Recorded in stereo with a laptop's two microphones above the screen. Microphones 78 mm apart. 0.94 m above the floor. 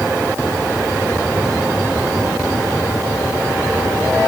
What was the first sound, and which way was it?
Only background noise.